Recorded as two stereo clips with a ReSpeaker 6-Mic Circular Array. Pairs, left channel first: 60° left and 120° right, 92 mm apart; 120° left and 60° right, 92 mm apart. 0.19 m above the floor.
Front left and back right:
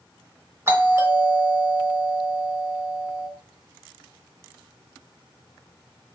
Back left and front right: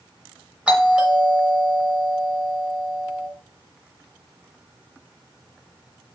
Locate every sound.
0.7 s a doorbell: 120° right, 1.5 m